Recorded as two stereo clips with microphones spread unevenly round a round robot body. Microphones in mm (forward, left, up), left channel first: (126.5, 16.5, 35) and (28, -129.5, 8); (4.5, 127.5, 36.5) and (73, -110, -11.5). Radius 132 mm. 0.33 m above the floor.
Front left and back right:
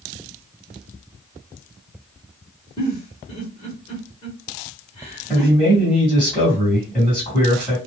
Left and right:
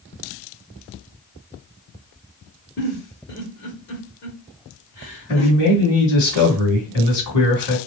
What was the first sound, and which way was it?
A giggle, 100° left.